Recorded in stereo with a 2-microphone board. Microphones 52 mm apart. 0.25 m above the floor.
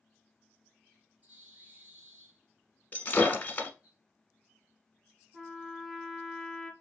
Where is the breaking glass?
30° left (ahead or behind), 1.0 m.